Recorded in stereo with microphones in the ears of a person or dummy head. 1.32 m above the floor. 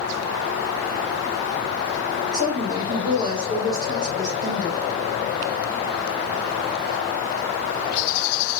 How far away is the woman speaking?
About 3.5 m.